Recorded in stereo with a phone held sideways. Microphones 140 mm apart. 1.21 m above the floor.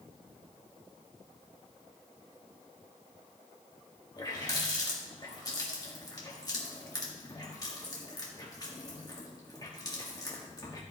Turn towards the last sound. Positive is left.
turn(degrees=30)  # may be behind; listen again after turning